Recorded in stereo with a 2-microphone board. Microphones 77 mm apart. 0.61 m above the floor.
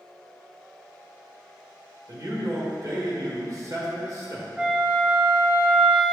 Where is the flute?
10° right (ahead or behind), 0.7 m.